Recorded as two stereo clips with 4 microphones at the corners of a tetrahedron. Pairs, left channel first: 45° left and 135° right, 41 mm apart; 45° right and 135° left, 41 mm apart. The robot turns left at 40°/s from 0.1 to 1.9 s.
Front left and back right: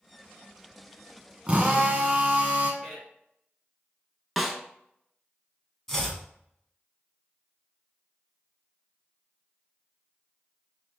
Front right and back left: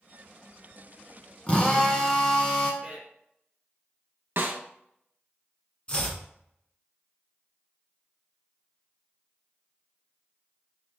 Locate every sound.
1.5 s a drill: 90° right, 1.1 m; by 2.7 s 105° right, 1.1 m
2.8 s a man speaking: 145° left, 1.6 m
4.4 s a snare drum: 135° left, 0.6 m
5.9 s chopping: 25° right, 1.1 m